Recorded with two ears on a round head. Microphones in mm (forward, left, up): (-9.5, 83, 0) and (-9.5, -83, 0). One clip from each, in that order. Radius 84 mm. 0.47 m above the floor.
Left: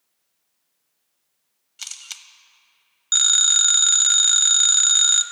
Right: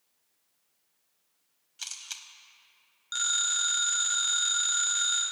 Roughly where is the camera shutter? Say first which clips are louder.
Left 4 dB; centre.